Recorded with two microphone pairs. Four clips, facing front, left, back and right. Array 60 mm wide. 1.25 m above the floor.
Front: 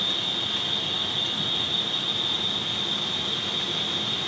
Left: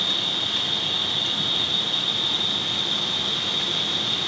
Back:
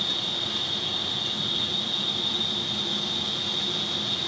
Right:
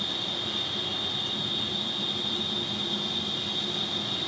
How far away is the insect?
About 1.3 m.